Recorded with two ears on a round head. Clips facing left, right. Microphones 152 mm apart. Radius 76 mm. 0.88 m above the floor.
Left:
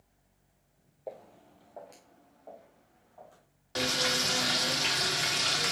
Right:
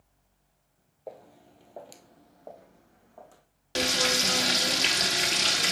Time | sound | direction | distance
1.1 | footsteps | centre (ahead or behind) | 1.3 m
3.8 | frying | 35° right (ahead or behind) | 1.4 m